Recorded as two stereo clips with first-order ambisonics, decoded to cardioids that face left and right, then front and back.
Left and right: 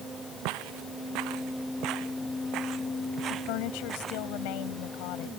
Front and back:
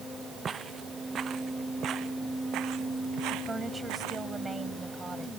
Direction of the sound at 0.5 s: 110° right.